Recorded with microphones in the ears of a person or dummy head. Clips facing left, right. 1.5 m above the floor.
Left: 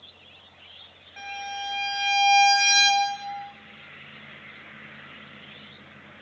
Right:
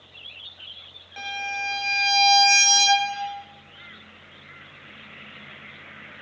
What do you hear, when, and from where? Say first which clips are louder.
1.2 s a violin: right 2 dB; 50° right (ahead or behind), 0.7 m